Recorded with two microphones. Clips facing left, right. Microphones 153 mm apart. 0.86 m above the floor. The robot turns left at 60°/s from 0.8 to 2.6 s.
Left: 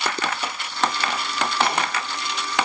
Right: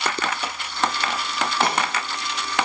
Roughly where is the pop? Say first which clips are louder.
Right 2 dB; right.